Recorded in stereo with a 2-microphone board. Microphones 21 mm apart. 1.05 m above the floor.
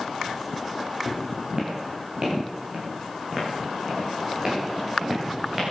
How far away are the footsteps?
About 6.5 m.